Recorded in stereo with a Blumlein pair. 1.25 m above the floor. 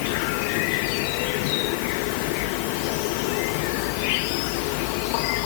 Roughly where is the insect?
Ahead left.